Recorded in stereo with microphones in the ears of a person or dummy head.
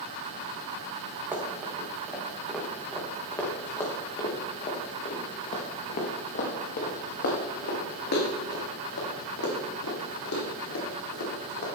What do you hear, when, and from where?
1.3 s running footsteps: 10° right (ahead or behind), 3.5 m; by 11.7 s 75° left (ahead or behind), 7.5 m